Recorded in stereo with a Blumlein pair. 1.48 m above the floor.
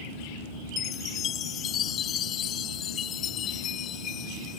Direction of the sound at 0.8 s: 30° left.